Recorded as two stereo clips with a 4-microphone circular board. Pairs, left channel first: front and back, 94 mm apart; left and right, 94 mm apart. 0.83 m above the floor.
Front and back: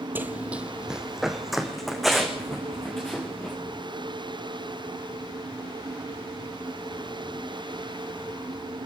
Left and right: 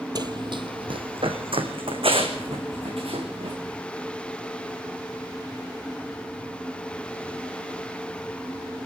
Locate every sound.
0.1 s running footsteps: 115° right, 1.3 m; by 3.5 s 85° right, 5 m